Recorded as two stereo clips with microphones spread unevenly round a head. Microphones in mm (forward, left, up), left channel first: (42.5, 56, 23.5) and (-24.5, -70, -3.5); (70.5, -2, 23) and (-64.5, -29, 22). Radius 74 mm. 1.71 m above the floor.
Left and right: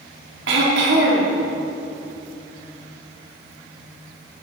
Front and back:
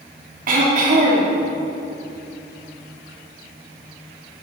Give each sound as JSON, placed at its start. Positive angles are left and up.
{"t": 0.5, "sound": "throat clearing", "azimuth_deg": -140, "distance_m": 3.0}